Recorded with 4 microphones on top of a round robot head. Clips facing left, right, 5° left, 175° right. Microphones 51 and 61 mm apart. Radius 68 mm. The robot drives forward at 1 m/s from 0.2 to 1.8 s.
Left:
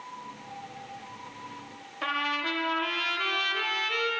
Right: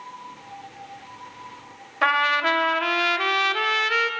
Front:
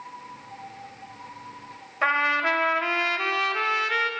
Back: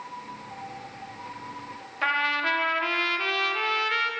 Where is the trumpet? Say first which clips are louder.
Right 10 dB, front 3 dB; 65° right, 0.5 m.